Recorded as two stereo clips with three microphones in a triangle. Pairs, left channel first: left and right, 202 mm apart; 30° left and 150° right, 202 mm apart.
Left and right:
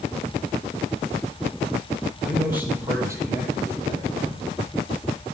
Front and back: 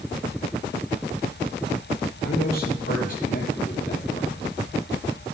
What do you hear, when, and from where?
2.2 s a man speaking: 5° right, 3.5 m; by 4.4 s 25° right, 4 m